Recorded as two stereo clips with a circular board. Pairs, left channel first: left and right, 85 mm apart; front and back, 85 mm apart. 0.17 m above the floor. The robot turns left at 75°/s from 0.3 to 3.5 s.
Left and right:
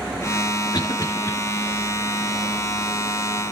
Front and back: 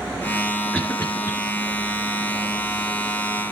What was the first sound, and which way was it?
A cough, 75° left.